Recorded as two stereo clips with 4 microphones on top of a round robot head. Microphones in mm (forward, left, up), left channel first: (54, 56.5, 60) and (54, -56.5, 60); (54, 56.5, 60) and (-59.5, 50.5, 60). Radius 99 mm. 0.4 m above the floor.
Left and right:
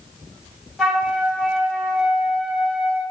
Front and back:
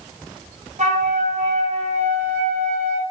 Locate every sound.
0.8 s a flute: 175° left, 1.5 m